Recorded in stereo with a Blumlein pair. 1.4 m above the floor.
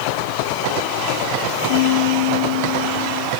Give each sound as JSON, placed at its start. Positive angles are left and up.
{"t": 1.7, "sound": "a piano", "azimuth_deg": 50}